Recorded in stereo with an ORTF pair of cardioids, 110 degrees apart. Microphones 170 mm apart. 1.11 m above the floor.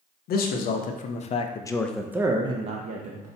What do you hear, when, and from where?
0.3 s a man speaking: 65° left, 1.0 m; by 3.3 s 55° right, 0.8 m